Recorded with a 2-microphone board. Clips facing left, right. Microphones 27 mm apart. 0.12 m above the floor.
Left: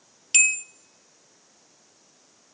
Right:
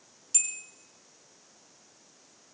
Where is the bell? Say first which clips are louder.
Left 18 dB; 65° left (ahead or behind), 0.7 m.